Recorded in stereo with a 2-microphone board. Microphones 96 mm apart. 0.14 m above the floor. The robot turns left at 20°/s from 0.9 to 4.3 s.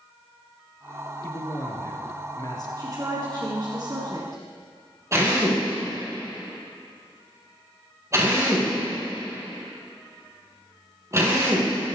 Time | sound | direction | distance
1.2 | a man speaking | 25° left (ahead or behind) | 1.9 m
2.8 | a woman speaking | 60° right | 1.9 m
5.1 | a drill | 30° right (ahead or behind) | 3.5 m